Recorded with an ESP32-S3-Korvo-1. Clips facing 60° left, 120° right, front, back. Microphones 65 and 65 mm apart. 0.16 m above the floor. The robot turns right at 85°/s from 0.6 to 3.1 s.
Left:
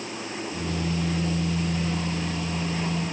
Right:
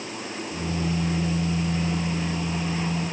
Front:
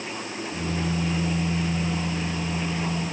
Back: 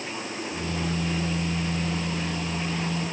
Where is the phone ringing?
I don't hear a phone ringing.